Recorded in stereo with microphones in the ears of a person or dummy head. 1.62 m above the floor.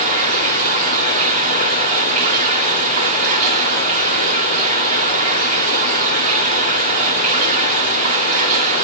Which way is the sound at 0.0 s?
40° right (ahead or behind).